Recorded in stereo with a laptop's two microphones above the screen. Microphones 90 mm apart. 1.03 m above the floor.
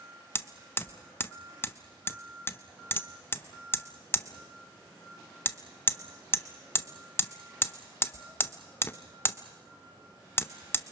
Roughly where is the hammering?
Left.